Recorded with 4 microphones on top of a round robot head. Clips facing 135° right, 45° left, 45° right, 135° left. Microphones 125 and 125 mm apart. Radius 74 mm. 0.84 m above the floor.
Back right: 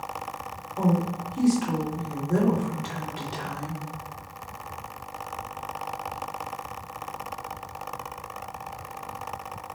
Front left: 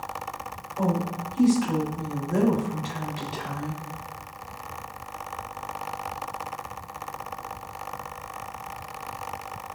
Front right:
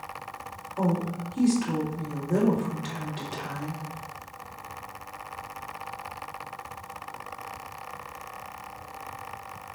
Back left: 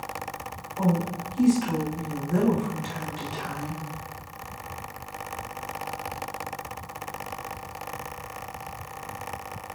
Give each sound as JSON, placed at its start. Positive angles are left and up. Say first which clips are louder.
{"t": 0.8, "sound": "a woman speaking", "louder": "back right 1 dB, back left 1 dB", "azimuth_deg": -100, "distance_m": 2.5}